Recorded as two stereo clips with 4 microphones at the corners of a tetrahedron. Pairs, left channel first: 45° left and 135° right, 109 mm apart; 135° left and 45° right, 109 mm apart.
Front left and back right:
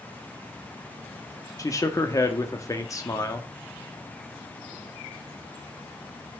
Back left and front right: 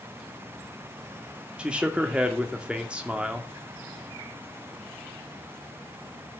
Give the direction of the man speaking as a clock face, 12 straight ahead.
11 o'clock.